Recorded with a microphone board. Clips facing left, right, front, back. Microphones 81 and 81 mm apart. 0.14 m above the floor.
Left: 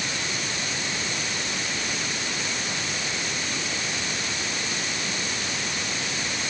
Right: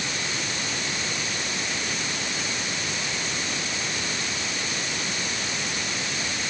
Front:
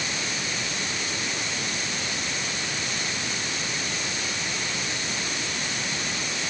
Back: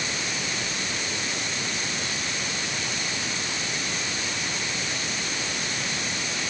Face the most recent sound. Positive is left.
No sound to turn to.